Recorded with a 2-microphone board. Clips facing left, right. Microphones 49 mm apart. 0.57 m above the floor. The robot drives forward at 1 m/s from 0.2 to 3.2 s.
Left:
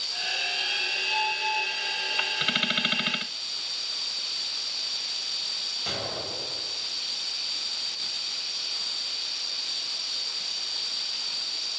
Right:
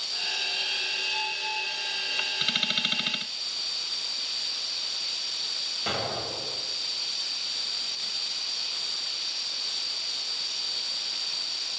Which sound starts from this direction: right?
An explosion, at 5.9 s.